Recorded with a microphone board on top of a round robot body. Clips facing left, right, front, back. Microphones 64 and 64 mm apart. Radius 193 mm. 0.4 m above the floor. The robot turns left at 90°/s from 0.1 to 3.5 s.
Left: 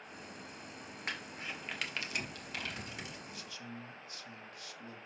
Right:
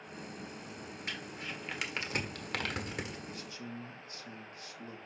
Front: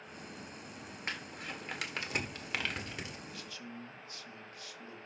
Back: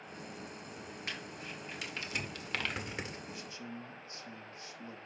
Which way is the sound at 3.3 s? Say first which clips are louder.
Right 3 dB, back 2 dB; 110° right.